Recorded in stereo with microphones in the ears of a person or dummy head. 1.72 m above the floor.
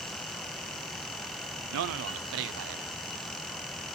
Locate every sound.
1.7 s a man speaking: 65° right (ahead or behind), 0.6 m